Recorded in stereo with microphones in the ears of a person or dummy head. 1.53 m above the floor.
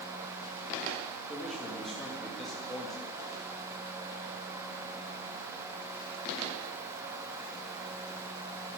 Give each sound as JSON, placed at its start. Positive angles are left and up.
{"t": 1.3, "sound": "a man speaking", "side_deg": -5, "distance_m": 3.0}